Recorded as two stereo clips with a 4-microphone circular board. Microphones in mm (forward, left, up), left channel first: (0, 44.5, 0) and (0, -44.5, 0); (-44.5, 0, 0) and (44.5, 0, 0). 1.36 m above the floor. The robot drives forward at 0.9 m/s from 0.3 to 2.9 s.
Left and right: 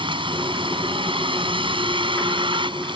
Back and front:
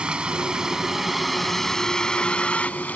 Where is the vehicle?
80° right; by 3.0 s 105° right.